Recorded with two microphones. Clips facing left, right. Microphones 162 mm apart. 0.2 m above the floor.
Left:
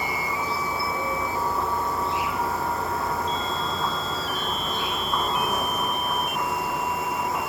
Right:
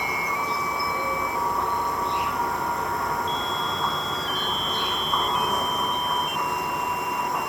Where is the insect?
Centre (ahead or behind).